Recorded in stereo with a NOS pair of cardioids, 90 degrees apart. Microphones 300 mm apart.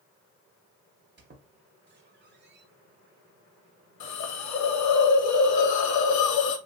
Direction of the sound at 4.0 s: 70° left.